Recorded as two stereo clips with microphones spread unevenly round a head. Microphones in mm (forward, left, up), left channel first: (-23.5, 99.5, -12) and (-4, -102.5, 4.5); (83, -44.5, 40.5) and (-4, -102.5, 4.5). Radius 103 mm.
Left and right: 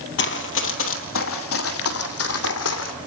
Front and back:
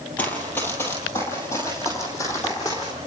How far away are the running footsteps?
About 2 m.